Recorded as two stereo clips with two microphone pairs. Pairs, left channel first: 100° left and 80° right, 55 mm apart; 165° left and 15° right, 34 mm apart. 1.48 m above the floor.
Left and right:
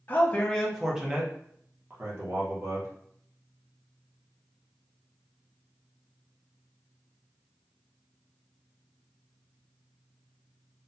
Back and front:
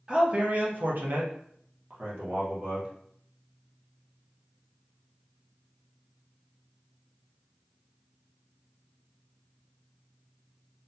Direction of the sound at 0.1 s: 45° left.